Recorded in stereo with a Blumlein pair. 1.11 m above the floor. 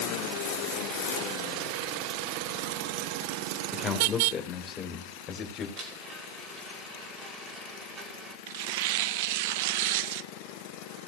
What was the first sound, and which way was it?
A man speaking, 10° left.